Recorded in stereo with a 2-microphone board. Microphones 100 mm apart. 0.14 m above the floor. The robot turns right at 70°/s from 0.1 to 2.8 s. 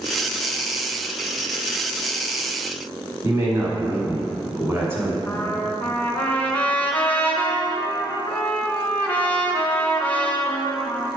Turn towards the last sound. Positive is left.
turn(degrees=15)  # may be behind; listen again after turning